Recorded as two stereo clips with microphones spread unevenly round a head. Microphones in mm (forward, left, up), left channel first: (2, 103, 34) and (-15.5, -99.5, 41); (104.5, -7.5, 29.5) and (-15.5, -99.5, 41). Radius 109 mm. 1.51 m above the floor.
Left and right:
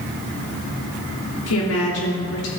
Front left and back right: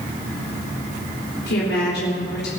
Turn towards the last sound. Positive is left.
turn(degrees=65)